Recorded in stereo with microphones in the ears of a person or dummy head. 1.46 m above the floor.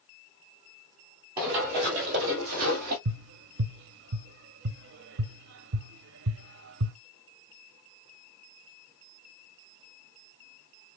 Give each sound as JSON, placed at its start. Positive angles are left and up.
{"t": 1.4, "sound": "running footsteps", "side_deg": -25, "distance_m": 2.5}
{"t": 3.0, "sound": "tapping", "side_deg": -70, "distance_m": 0.6}